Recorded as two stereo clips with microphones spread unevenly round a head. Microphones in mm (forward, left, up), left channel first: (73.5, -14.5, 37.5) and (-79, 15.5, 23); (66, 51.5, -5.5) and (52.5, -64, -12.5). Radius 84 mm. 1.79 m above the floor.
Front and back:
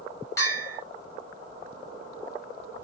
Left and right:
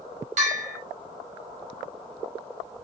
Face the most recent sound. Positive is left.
turn(degrees=-80)